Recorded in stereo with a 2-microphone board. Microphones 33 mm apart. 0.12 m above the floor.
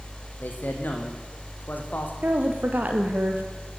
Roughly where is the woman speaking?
Right.